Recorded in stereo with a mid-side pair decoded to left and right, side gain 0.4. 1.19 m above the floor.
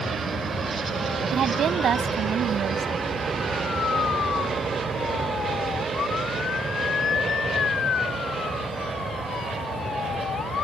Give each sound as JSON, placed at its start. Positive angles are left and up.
{"t": 1.3, "sound": "a woman speaking", "azimuth_deg": -65}